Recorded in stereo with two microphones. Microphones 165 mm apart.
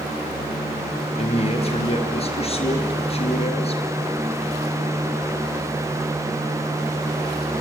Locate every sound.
1.2 s a man speaking: 40° left (ahead or behind), 4 m